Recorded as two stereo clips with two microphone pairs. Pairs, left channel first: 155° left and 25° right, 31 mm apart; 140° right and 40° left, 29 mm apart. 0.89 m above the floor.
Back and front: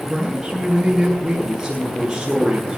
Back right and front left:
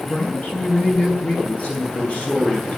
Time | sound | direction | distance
0.1 | a man speaking | 100° right | 9 m